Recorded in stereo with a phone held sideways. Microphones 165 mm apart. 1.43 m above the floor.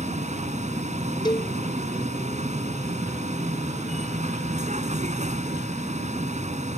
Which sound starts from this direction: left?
A cowbell, at 1.2 s.